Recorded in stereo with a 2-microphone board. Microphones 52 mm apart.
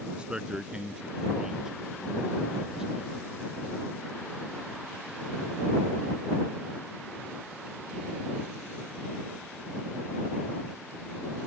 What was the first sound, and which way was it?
A man speaking, 20° right (ahead or behind).